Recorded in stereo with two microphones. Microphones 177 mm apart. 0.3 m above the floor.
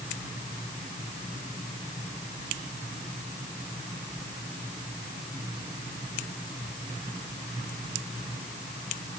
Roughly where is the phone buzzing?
I don't hear a phone buzzing.